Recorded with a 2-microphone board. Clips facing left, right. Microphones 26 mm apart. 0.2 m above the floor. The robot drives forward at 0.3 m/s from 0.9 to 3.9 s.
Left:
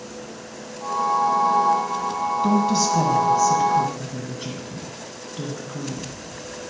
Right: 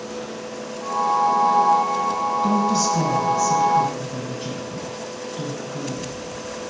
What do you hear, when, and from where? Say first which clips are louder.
2.4 s a woman speaking: left 1 dB; 20° left (ahead or behind), 1.3 m